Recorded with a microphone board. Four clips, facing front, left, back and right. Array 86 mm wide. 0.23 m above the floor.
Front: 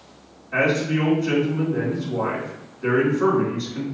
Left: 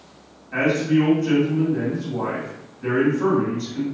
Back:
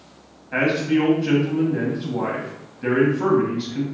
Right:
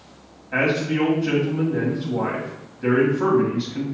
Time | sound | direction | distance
0.5 | a man speaking | 140° right | 1.6 m